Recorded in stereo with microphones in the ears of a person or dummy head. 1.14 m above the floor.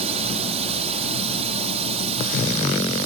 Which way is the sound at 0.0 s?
35° right (ahead or behind).